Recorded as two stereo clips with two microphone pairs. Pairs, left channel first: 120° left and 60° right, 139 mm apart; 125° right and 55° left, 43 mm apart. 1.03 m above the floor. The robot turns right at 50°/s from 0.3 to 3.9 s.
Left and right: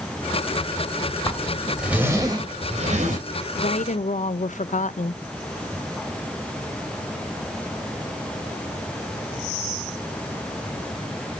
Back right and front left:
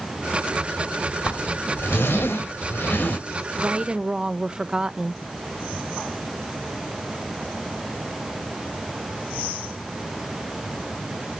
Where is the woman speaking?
105° left, 0.5 m; by 5.2 s 125° left, 0.5 m.